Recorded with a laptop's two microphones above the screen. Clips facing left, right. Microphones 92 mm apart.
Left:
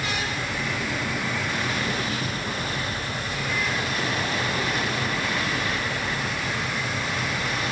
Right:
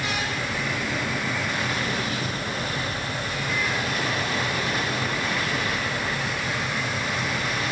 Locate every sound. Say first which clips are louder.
0.0 s a fan: right 1 dB; 10° right (ahead or behind)